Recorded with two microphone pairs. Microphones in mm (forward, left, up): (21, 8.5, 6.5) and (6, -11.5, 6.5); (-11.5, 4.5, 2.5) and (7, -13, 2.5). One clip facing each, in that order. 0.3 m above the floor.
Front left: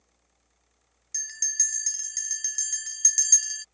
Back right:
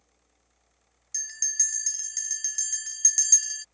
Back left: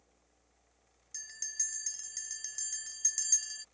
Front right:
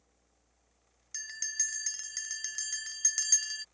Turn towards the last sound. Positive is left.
turn(degrees=-30)